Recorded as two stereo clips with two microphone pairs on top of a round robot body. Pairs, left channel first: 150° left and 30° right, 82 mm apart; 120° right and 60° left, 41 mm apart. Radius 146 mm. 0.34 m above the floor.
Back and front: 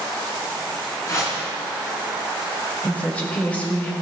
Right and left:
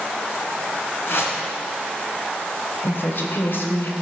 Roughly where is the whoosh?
Behind right.